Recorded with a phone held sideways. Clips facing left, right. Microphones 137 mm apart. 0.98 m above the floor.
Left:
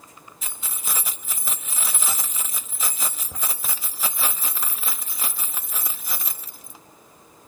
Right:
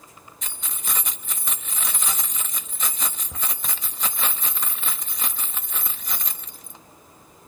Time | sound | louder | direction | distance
0.4 | keys jangling | even | 5° left (ahead or behind) | 0.9 m